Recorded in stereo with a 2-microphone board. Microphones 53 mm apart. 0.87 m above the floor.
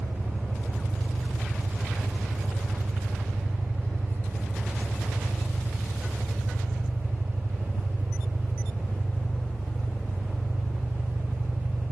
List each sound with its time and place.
0.0 s an engine running: 35° left (ahead or behind), 1.9 m